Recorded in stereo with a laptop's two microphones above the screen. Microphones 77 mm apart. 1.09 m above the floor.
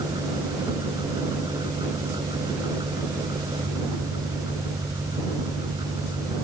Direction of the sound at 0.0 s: 80° right.